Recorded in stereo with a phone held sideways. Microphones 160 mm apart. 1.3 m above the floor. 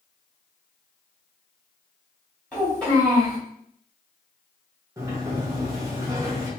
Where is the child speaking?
5° left (ahead or behind), 2 m.